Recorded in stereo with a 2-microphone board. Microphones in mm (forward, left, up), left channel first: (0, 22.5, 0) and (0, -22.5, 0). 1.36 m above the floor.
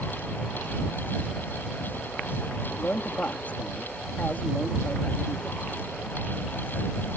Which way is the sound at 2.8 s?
35° left (ahead or behind).